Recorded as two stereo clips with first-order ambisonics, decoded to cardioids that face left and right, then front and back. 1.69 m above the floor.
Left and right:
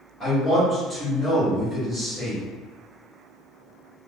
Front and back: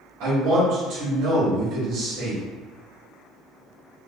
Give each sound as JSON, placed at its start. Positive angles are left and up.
{"t": 0.2, "sound": "a man speaking", "azimuth_deg": -175, "distance_m": 1.0}